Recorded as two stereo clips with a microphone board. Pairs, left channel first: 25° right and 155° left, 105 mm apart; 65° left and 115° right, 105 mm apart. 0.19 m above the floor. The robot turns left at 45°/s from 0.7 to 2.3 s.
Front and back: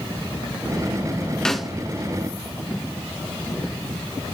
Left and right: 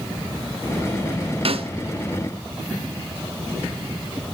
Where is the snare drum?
105° right, 0.6 m; by 1.7 s 120° right, 0.6 m.